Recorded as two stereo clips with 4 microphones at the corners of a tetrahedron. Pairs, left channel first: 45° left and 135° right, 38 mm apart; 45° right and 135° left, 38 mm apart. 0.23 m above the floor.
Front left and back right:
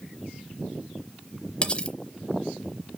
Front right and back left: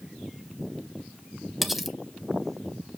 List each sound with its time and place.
1.6 s cutlery clinking: 50° left, 0.7 m